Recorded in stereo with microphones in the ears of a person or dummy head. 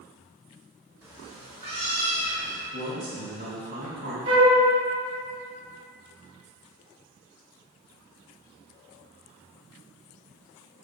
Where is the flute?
30° right (ahead or behind), 2.5 m.